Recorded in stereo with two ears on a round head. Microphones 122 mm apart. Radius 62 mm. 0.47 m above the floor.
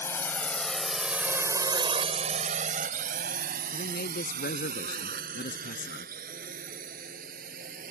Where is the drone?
20° left (ahead or behind); by 7.9 s 60° right (ahead or behind).